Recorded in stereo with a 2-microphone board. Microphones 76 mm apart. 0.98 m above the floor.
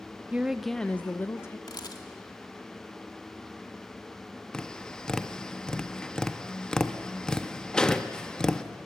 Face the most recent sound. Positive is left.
turn(degrees=10)  # may be behind; listen again after turning